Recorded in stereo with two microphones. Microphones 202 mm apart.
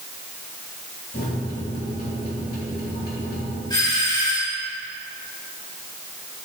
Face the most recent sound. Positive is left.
turn(degrees=20)  # may be behind; listen again after turning